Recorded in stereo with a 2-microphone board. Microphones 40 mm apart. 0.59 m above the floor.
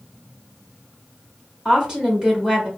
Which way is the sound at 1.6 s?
15° right (ahead or behind).